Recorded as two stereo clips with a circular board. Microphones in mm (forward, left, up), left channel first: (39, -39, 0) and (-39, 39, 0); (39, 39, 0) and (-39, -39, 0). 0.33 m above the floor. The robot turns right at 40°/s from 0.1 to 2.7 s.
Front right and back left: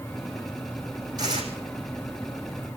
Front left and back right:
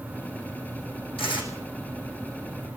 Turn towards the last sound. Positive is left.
turn(degrees=145)